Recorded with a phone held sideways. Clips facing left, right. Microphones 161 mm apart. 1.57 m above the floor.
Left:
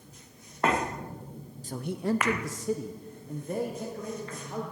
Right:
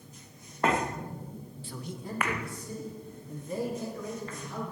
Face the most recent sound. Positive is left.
turn(degrees=45)  # may be behind; listen again after turning